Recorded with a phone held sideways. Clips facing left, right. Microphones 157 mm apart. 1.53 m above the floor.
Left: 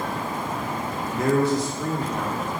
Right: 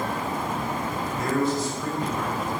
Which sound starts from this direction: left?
A man speaking, at 1.1 s.